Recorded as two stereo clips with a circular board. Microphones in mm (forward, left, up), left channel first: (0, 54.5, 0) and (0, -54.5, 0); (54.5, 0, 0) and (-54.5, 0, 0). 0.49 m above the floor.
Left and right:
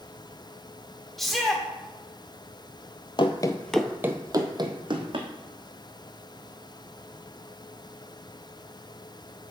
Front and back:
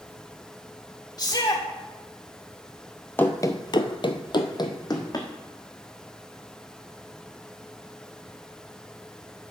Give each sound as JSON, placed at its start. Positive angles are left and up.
{"t": 1.2, "sound": "a shout", "azimuth_deg": 0, "distance_m": 1.4}
{"t": 3.2, "sound": "running footsteps", "azimuth_deg": 70, "distance_m": 0.7}